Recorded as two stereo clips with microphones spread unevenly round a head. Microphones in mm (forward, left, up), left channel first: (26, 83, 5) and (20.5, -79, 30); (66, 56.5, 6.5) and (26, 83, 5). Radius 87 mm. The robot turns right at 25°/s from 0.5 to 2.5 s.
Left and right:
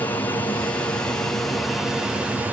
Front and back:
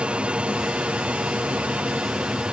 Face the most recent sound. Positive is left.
turn(degrees=180)